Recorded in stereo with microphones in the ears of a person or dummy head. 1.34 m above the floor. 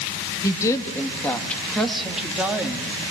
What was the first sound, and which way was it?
A woman speaking, 20° left (ahead or behind).